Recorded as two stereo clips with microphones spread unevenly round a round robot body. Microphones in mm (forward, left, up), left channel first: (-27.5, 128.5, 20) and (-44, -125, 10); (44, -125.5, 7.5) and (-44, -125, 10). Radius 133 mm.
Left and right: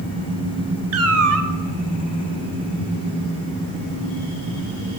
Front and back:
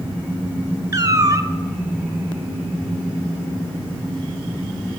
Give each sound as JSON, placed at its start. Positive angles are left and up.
{"t": 0.9, "sound": "a cat meowing", "azimuth_deg": -130, "distance_m": 0.9}